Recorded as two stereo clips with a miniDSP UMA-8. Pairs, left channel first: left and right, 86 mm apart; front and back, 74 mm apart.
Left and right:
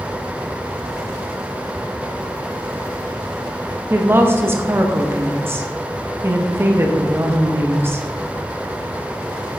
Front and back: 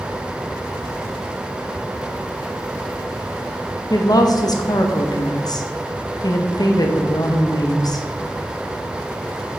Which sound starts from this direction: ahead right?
A woman speaking, at 3.9 s.